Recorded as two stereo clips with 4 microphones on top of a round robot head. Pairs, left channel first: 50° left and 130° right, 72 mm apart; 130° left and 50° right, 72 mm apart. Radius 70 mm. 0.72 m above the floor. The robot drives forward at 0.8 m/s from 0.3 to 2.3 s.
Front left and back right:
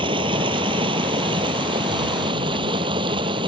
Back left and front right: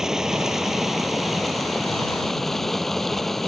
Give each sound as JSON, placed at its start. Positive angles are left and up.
{"t": 0.0, "sound": "running water", "azimuth_deg": -135}